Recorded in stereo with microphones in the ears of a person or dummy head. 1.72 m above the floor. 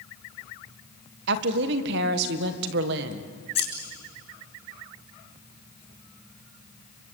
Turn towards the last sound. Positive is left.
turn(degrees=30)  # may be behind; listen again after turning